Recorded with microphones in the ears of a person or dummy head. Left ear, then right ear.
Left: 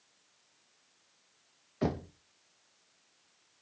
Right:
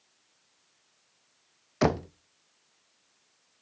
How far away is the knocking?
About 0.6 m.